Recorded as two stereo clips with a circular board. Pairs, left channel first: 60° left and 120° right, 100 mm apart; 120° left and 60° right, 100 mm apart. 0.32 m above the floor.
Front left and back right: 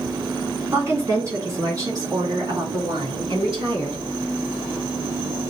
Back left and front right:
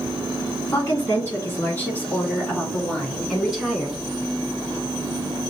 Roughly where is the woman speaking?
Behind.